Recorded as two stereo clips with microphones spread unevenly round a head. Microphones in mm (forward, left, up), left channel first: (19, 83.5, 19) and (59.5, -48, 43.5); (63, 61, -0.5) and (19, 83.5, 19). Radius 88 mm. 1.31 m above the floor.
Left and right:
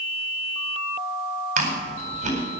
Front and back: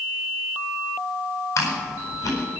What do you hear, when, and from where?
1.6 s chewing: 45° right, 9 m